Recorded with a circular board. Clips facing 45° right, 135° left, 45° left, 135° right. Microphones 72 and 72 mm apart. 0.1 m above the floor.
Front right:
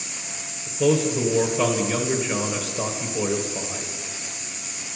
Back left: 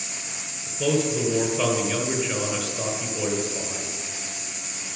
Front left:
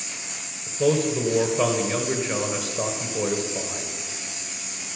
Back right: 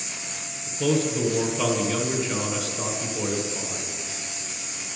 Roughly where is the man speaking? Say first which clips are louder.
Front right 3 dB, front left 2 dB; ahead left.